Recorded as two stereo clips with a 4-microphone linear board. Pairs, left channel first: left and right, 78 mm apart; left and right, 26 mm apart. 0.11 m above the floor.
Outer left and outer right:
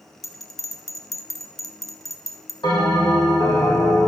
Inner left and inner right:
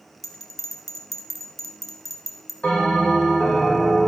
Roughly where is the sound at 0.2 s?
Centre.